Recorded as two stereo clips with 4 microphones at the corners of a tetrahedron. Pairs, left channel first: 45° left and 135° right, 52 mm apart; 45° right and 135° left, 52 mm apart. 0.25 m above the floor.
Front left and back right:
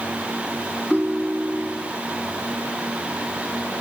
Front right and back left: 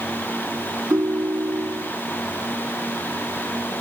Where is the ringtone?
145° left, 1.7 m.